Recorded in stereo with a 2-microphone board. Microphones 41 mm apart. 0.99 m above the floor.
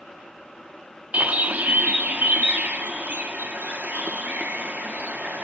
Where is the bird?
45° right (ahead or behind), 0.9 m.